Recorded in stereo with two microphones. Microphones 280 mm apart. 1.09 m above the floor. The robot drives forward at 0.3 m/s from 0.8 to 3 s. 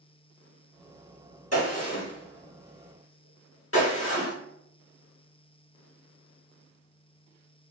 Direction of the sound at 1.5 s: 60° left (ahead or behind).